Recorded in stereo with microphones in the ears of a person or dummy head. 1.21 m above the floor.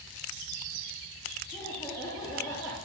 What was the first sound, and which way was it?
Laughter, centre (ahead or behind).